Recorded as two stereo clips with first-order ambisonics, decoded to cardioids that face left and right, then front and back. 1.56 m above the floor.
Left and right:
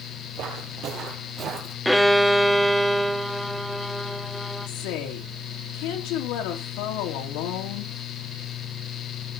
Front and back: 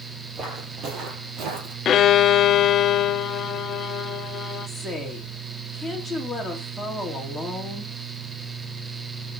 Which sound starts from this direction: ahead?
A violin, at 1.9 s.